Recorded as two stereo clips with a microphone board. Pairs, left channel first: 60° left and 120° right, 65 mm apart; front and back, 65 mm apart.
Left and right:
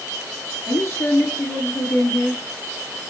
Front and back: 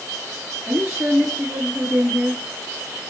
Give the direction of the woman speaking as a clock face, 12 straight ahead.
8 o'clock.